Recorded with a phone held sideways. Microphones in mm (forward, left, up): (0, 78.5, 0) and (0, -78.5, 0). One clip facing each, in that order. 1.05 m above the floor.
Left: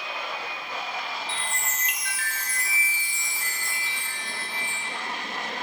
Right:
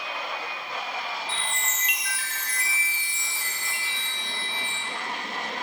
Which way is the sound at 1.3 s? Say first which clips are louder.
Even; centre (ahead or behind).